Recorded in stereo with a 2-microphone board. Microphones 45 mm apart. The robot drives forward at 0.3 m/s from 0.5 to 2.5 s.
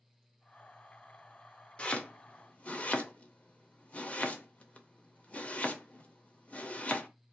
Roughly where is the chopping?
Left.